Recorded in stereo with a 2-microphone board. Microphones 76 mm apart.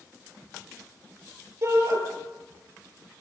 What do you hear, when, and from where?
1.6 s a shout: 35° right (ahead or behind), 9 m